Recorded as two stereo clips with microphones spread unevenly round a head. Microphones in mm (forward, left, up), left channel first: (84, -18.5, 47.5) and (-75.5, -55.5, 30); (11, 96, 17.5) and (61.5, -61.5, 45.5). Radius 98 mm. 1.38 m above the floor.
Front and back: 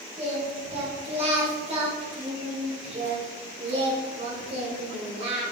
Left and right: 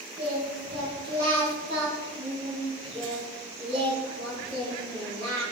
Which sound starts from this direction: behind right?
Singing, at 0.2 s.